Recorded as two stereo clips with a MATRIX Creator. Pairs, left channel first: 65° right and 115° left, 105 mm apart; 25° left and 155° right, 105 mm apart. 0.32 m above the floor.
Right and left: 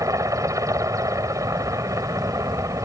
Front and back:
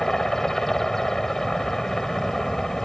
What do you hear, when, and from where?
0.0 s a helicopter: 105° left